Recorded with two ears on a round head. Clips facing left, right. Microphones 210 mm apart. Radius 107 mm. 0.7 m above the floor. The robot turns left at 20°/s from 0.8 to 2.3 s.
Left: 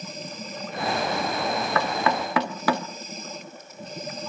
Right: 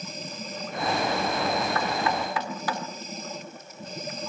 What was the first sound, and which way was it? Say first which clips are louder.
Knocking: left 2 dB; 55° left (ahead or behind).